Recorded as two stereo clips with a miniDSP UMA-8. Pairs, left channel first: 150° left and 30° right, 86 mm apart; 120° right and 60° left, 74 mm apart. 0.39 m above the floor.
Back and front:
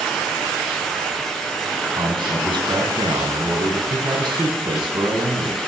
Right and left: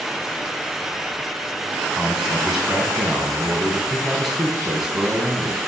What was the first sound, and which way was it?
A man speaking, 25° right.